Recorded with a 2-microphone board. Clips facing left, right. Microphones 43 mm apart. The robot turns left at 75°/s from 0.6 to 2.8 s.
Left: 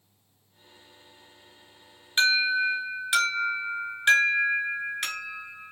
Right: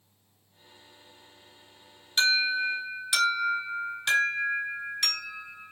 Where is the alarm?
140° left, 1.6 m; by 5.7 s 95° left, 1.6 m.